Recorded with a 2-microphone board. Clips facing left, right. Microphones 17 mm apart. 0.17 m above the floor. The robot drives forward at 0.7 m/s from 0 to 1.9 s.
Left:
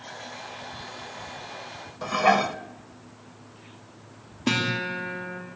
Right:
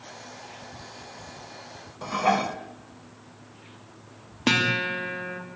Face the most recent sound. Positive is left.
turn(degrees=-60)  # may be behind; listen again after turning